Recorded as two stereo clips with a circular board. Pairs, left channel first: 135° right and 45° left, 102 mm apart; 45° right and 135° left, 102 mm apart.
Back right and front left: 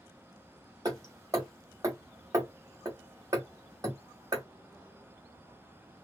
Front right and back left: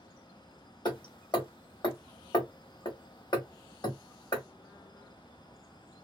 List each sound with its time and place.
0.8 s hammering: 5° right, 1.2 m